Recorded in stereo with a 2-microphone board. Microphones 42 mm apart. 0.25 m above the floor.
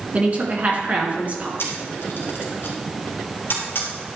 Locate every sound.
0.1 s a woman speaking: 35° right (ahead or behind), 3.5 m
1.6 s a camera shutter: 60° left (ahead or behind), 2.5 m